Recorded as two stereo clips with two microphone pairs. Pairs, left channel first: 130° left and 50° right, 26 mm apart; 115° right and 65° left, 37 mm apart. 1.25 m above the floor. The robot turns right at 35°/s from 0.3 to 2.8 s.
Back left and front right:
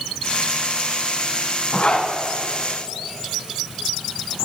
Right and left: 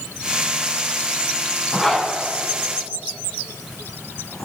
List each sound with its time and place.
1.7 s a zipper: 165° left, 3 m; by 4.5 s 160° right, 3 m